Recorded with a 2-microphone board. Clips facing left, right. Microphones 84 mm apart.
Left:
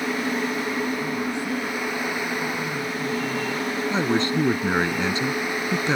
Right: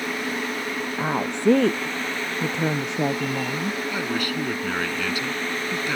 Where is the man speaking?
25° left (ahead or behind).